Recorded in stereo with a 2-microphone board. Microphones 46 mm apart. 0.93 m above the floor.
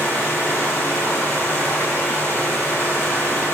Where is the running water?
50° left (ahead or behind), 5.5 m.